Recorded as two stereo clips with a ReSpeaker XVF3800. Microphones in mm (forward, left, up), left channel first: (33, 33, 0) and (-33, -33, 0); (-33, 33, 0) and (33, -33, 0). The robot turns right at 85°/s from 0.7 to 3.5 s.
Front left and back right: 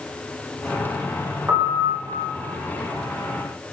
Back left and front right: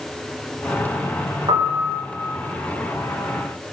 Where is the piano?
75° right, 3 m; by 2.3 s 10° right, 3 m.